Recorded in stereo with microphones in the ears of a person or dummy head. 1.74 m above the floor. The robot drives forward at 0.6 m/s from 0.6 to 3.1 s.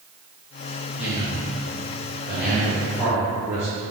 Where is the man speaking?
10° right (ahead or behind), 2.5 m; by 3.8 s 5° right (ahead or behind), 4 m.